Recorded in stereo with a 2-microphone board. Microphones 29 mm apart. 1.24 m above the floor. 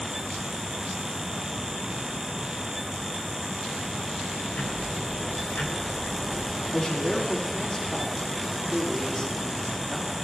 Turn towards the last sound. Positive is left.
turn(degrees=45)  # may be behind; listen again after turning